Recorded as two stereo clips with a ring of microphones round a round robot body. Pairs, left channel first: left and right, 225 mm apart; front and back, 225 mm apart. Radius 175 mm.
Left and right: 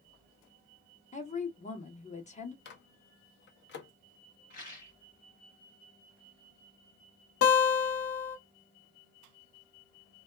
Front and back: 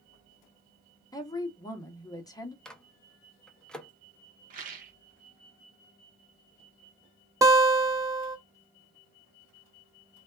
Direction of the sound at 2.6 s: 85° left.